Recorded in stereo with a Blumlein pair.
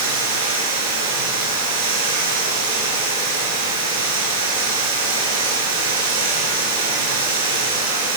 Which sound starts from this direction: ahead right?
Running water, at 0.0 s.